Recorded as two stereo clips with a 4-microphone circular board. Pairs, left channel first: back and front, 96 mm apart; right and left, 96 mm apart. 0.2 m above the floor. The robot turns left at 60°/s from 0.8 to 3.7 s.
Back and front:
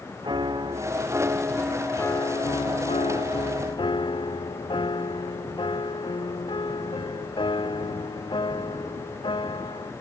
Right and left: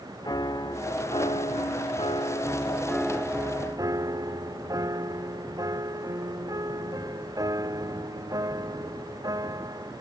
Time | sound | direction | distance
0.2 | a piano | 45° right | ?